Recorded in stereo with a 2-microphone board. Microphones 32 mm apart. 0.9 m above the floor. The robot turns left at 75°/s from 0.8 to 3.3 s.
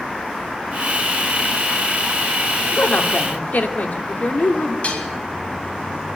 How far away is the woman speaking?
About 2 m.